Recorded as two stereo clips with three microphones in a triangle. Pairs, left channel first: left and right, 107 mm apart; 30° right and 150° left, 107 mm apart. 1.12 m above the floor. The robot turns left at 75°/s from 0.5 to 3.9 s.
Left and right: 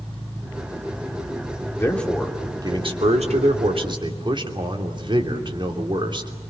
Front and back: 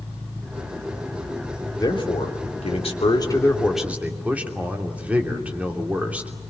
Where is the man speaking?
30° left, 3 m; by 6.3 s 135° right, 3 m.